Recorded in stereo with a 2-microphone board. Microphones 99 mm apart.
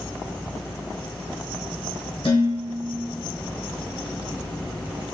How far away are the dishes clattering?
About 1.3 m.